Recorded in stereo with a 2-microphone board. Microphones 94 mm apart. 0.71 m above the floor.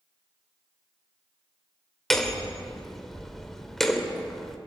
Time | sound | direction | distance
2.1 | hammering | 5° left (ahead or behind) | 2.5 m